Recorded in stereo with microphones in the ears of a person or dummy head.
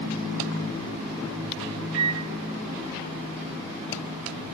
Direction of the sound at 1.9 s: 55° right (ahead or behind).